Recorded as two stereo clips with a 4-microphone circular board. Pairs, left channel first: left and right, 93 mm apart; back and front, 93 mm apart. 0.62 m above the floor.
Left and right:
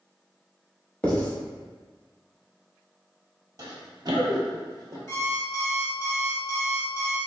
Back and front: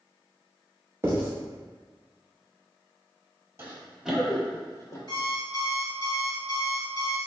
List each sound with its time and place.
1.0 s writing: 30° left, 1.0 m
3.6 s running footsteps: 55° right, 1.0 m; by 5.0 s 140° right, 1.0 m
5.1 s an alarm clock: 145° left, 1.4 m